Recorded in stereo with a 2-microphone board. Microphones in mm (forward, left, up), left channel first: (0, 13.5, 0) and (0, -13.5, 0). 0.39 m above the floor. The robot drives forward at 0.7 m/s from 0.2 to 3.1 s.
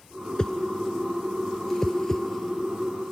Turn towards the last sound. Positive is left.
turn(degrees=15)  # may be behind; listen again after turning